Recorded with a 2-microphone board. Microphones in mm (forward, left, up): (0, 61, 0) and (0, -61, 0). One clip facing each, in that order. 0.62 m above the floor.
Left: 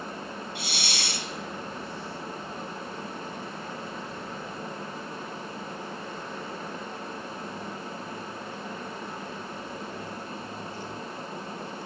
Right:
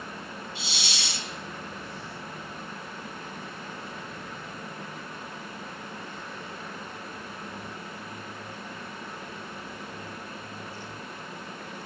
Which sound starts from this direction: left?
A hiss, at 0.6 s.